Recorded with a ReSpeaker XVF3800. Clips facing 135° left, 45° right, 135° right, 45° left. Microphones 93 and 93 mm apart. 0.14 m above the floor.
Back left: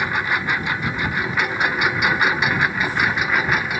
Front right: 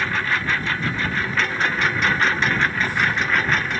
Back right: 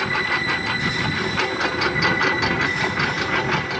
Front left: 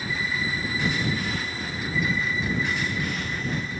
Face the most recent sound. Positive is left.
turn(degrees=-145)